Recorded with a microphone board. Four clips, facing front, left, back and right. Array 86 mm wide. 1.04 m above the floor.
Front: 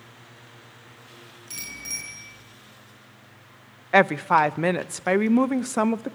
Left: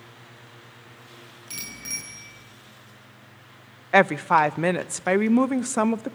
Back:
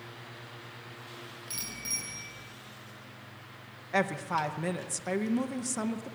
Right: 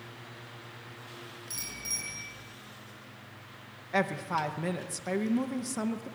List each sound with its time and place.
1.5 s a bicycle bell: 75° left, 9 m
3.9 s a woman speaking: 45° left, 0.6 m